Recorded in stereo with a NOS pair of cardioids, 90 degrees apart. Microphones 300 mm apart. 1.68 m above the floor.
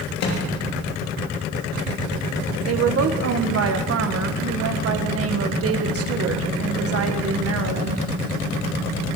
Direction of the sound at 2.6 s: 50° right.